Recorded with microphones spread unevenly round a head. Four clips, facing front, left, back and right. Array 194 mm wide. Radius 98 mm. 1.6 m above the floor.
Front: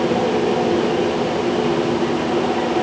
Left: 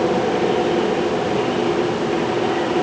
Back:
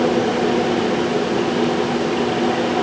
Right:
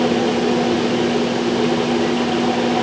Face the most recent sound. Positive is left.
No sound to turn to.